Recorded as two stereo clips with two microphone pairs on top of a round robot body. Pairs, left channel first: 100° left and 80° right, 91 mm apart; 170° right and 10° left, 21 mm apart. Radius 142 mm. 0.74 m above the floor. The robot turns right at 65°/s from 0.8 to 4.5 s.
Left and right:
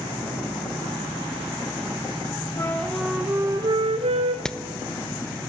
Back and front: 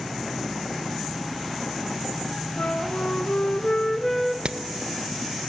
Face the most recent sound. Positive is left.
turn(degrees=15)